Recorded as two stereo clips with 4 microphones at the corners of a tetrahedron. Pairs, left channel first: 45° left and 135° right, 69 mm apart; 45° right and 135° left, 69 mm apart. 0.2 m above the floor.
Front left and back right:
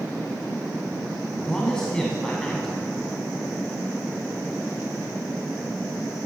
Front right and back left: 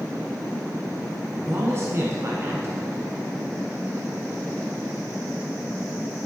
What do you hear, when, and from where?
1.4 s a man speaking: 120° left, 1.3 m